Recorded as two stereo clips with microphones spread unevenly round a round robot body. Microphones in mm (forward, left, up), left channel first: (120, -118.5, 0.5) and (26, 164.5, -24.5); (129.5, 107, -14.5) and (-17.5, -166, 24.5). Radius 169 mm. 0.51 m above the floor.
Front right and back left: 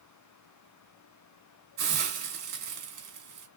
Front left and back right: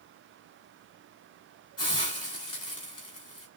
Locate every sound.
1.8 s a hiss: 115° left, 1.4 m